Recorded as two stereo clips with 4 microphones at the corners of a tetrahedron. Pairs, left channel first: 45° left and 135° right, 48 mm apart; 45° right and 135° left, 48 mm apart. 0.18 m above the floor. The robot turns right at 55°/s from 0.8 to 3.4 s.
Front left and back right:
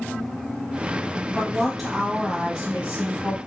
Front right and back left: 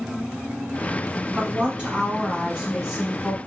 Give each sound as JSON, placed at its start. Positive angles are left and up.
{"t": 1.4, "sound": "a woman speaking", "azimuth_deg": 105, "distance_m": 1.0}